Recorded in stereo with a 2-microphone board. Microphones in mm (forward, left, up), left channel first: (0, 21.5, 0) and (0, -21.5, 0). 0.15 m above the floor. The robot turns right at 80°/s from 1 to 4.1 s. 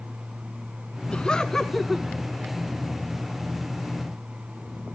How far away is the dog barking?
No dog barking in this recording.